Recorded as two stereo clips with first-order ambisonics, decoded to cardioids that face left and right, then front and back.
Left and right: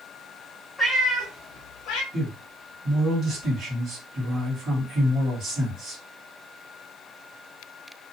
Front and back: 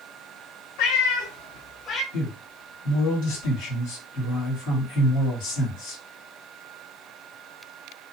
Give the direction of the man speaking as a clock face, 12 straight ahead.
1 o'clock.